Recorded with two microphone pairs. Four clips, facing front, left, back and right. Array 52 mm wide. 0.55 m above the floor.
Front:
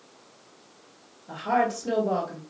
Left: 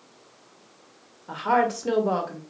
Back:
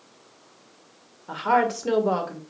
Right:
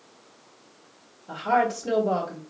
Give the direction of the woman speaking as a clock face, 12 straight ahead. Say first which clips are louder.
Left 1 dB, back 3 dB; 7 o'clock.